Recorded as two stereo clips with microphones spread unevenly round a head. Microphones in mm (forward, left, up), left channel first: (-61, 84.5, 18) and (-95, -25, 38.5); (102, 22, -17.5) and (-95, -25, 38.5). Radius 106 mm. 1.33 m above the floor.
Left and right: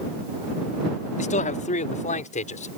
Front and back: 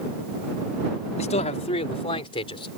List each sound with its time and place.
1.2 s a man speaking: 75° left; by 2.7 s 85° left